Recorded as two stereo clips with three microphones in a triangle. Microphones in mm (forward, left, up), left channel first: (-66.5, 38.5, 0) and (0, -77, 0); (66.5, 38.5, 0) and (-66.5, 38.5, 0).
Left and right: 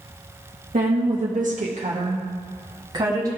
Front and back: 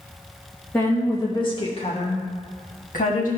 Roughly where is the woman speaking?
Right.